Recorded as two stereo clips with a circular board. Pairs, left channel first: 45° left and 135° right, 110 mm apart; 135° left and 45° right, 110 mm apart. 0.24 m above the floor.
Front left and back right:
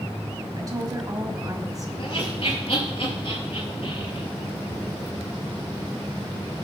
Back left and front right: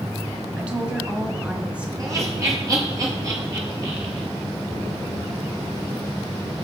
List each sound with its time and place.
0.6 s a woman speaking: 115° right, 1.7 m
2.0 s laughter: 15° left, 6 m